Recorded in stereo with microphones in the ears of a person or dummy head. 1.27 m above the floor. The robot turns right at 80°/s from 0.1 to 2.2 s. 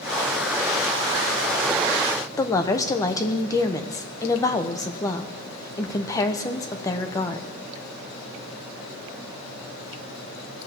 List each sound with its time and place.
2.4 s a woman speaking: 20° left (ahead or behind), 0.8 m